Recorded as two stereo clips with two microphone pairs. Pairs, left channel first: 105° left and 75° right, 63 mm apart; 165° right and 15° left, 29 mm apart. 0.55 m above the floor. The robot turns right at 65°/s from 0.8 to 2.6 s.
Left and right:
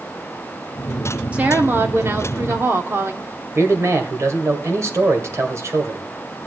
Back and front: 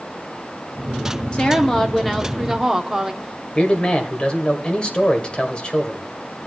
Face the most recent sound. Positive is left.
turn(degrees=-110)